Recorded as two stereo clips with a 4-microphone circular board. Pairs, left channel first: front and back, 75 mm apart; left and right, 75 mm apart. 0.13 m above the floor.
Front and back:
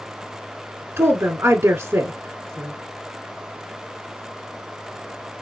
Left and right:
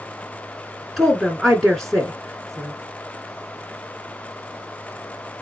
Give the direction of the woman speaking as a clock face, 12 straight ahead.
6 o'clock.